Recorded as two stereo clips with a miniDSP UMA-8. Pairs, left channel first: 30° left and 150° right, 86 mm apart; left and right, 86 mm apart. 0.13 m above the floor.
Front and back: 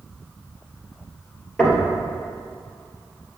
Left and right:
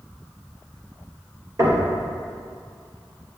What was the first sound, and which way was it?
Knocking, 45° right.